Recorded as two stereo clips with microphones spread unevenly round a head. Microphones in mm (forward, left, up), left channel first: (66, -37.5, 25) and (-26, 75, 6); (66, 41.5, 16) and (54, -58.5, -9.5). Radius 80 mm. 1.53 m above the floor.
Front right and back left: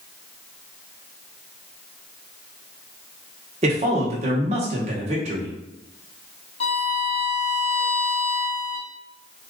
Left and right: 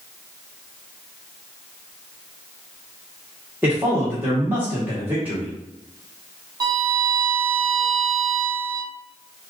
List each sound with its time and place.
3.6 s a man speaking: 175° right, 1.4 m
6.6 s a violin: 50° right, 1.1 m